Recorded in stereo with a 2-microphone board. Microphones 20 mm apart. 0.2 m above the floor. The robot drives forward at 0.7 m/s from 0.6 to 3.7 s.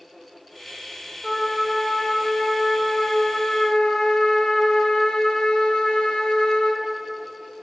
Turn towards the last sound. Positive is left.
turn(degrees=70)  # may be behind; listen again after turning